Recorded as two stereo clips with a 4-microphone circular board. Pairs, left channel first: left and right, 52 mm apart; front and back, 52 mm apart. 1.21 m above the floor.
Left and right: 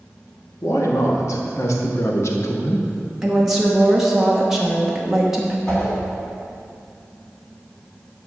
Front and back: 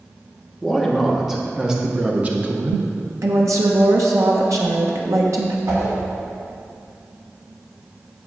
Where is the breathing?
No breathing in this recording.